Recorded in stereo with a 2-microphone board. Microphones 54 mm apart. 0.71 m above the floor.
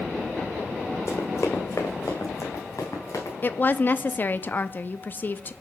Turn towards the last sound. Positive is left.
turn(degrees=35)  # may be behind; listen again after turning